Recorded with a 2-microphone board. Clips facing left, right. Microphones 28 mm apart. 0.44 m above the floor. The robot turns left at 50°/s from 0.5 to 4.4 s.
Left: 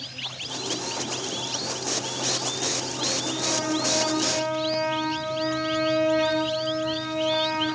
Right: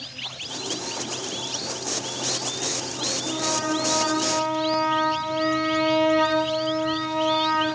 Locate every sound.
3.2 s a trumpet: 35° right, 2.5 m; by 7.7 s 90° right, 2.5 m